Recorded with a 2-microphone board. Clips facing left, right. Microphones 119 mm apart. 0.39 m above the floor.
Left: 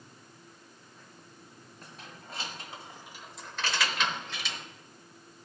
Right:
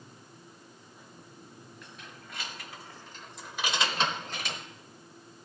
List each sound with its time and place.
1.8 s keys jangling: 45° left (ahead or behind), 1.5 m; by 4.6 s 60° right (ahead or behind), 1.0 m